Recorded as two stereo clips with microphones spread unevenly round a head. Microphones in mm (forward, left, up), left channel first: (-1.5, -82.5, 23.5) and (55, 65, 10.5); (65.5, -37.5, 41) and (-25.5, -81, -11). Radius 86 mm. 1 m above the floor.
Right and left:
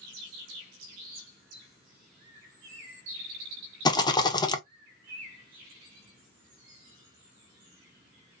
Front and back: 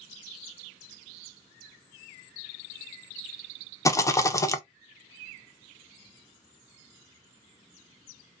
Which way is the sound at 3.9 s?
55° right.